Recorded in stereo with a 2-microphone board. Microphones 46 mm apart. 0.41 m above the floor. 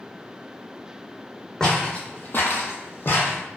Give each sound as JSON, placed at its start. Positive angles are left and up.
{"t": 1.6, "sound": "footsteps", "side_deg": 15, "distance_m": 0.9}